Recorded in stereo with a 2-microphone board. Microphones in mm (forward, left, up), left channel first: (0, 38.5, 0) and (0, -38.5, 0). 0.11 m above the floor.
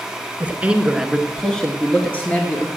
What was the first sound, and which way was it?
A man speaking, 20° right (ahead or behind).